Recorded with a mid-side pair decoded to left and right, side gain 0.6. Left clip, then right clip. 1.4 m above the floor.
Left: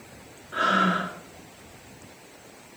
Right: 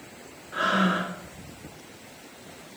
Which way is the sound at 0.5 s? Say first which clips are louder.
Left 2 dB; 10° left.